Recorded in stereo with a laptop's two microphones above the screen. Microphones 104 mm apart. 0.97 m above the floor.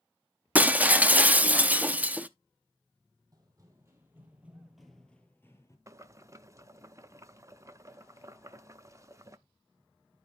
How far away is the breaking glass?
About 0.6 m.